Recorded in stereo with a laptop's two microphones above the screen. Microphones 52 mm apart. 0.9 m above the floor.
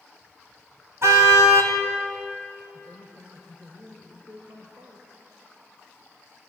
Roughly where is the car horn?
Right.